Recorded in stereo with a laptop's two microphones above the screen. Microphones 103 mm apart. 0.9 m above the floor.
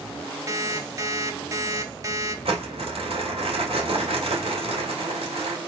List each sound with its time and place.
0.5 s an alarm clock: 30° right (ahead or behind), 0.9 m
2.5 s crumpling: 90° right, 2.5 m